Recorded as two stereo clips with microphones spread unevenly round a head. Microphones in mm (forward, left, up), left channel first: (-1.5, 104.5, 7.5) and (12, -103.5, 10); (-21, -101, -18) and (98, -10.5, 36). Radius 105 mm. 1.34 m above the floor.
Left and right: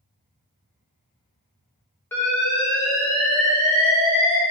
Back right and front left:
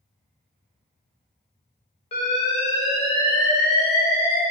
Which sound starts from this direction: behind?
An alarm, at 2.1 s.